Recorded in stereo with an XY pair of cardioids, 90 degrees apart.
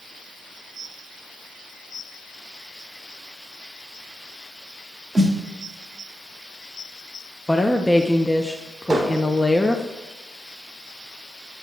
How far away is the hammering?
About 4 m.